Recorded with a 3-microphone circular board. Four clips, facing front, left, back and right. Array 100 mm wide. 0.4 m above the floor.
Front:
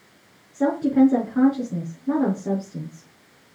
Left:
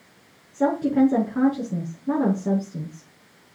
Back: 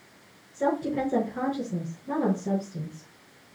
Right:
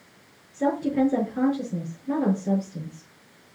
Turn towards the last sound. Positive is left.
turn(degrees=55)